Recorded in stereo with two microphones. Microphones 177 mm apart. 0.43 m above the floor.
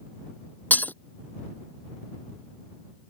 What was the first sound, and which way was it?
Breaking glass, 10° left (ahead or behind).